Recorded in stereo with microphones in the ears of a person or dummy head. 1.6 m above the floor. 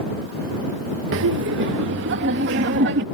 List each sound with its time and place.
1.1 s laughter: 65° right (ahead or behind); by 3.0 s 60° right (ahead or behind)